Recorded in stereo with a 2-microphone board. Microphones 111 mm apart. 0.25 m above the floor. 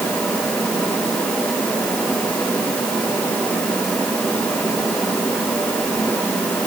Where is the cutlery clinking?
No cutlery clinking in this recording.